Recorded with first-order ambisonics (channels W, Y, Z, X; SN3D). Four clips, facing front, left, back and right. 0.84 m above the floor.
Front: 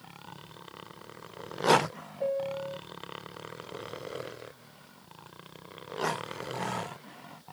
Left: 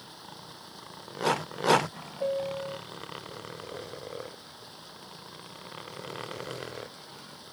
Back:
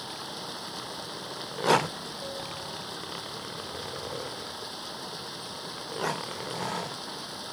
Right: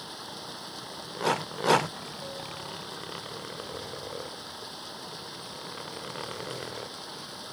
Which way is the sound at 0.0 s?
155° right.